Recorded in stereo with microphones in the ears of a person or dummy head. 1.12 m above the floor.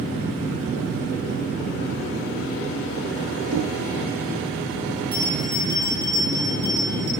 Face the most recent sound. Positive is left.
turn(degrees=-25)  # may be behind; listen again after turning